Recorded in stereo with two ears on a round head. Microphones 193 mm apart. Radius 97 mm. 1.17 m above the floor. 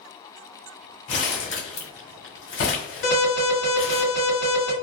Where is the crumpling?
60° left (ahead or behind), 1.4 m.